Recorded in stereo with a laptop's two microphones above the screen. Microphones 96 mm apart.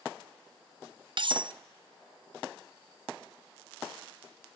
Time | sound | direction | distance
1.2 | cutlery clinking | 55° right (ahead or behind) | 0.5 m